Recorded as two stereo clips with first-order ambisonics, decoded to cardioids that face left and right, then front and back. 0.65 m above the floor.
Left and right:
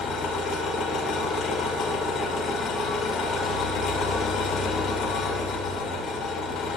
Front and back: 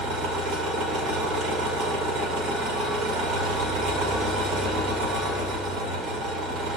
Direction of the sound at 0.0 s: 135° left.